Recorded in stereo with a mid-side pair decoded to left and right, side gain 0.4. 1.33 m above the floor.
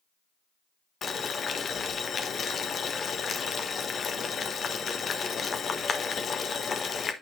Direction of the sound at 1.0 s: 50° left.